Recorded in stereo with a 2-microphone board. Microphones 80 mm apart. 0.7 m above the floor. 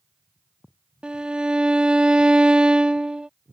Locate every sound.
1.0 s a violin: 15° right (ahead or behind)